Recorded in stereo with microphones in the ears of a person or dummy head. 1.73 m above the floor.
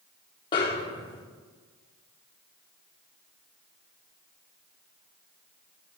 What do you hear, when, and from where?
0.5 s a snare drum: 25° left (ahead or behind), 0.5 m